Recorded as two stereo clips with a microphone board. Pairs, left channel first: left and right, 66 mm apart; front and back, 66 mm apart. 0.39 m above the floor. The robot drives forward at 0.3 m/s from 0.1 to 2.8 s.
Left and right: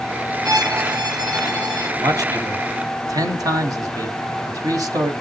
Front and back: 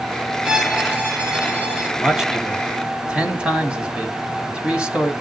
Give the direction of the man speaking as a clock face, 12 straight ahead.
3 o'clock.